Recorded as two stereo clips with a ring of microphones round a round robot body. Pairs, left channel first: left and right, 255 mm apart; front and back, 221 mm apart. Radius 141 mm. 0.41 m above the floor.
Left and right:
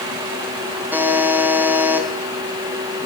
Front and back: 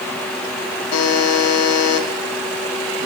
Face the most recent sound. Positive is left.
turn(degrees=-5)